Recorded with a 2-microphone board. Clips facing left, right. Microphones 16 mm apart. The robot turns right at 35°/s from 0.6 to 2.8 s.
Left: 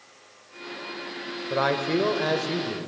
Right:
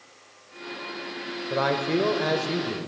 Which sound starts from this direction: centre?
A man speaking, at 1.5 s.